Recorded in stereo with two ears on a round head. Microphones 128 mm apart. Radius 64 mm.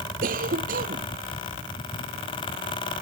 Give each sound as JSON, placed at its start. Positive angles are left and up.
{"t": 0.2, "sound": "a cough", "side_deg": -65}